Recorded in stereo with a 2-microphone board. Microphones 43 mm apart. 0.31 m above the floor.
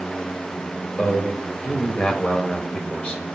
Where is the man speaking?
30° left (ahead or behind), 1.1 m.